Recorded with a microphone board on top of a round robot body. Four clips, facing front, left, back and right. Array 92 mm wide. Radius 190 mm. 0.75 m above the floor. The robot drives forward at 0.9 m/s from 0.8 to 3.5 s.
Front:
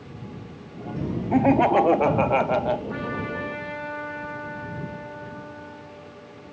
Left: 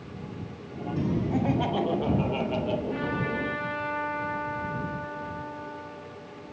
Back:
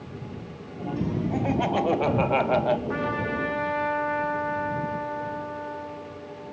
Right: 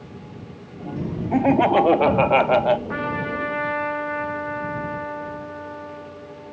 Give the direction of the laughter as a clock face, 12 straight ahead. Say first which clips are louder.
Right 13 dB, front 9 dB; 2 o'clock.